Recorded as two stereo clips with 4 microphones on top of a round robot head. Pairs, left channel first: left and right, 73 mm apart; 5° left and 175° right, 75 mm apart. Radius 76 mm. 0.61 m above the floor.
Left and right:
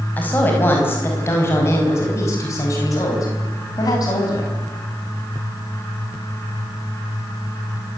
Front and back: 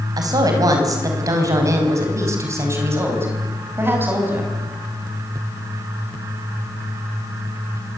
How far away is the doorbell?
No doorbell in this recording.